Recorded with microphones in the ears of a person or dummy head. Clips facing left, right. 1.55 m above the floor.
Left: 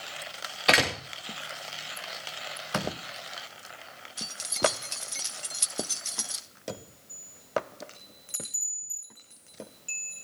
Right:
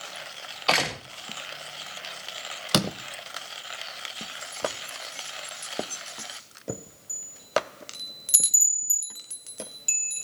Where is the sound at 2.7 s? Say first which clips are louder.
Right 6 dB; 50° right (ahead or behind), 1.0 m.